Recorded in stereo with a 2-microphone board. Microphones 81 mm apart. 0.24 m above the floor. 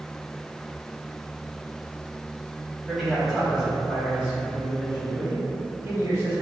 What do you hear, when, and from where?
2.9 s a man speaking: centre (ahead or behind), 1.5 m; by 6.4 s 30° right (ahead or behind), 2 m